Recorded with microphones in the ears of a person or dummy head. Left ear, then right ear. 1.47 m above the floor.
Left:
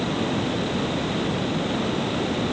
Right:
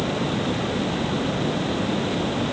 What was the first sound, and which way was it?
Only background noise.